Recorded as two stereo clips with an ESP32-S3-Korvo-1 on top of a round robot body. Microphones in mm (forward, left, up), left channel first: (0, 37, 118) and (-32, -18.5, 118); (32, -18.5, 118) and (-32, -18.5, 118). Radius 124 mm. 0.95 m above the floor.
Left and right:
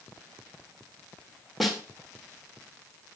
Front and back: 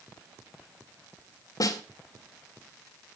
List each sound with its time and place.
1.6 s a snare drum: 30° right, 2 m